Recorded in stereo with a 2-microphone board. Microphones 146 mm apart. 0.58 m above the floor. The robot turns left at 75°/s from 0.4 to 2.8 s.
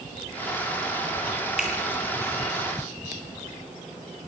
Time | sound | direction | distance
1.6 | a finger snap | 5° right (ahead or behind) | 9.5 m